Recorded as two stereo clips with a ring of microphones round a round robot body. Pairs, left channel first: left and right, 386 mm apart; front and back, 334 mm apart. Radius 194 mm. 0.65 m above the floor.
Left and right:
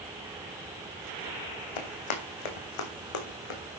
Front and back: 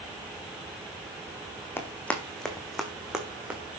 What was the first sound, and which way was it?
Running footsteps, 85° left.